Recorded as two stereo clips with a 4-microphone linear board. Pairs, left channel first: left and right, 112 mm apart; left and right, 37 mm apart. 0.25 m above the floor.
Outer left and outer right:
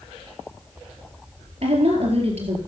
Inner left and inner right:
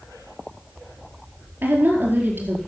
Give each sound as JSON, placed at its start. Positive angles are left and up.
{"t": 1.6, "sound": "a woman speaking", "side_deg": -70, "distance_m": 4.0}